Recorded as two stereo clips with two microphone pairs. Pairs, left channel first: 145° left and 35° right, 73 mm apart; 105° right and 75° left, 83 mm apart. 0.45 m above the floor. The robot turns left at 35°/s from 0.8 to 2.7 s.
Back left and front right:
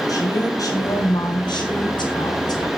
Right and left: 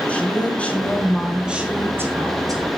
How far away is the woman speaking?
About 5 m.